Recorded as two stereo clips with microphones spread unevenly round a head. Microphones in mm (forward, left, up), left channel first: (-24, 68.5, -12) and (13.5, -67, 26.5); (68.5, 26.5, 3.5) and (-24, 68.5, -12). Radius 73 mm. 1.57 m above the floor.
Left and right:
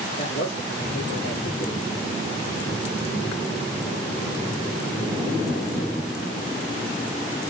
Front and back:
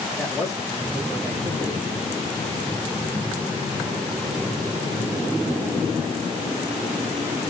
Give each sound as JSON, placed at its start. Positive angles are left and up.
{"t": 0.2, "sound": "a man speaking", "azimuth_deg": 65, "distance_m": 3.5}